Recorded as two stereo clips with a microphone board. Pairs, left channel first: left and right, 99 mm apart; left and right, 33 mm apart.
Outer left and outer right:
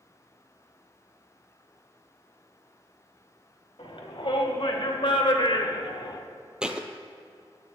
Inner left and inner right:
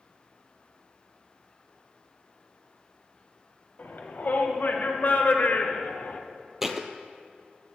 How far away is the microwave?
I don't hear a microwave.